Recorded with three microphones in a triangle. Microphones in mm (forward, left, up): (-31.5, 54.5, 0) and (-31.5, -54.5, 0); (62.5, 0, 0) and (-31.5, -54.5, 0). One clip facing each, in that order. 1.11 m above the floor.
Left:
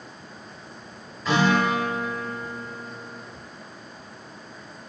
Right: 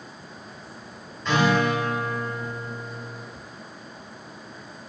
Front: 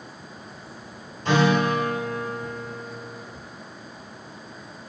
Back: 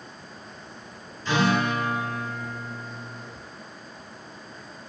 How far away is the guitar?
About 2.5 m.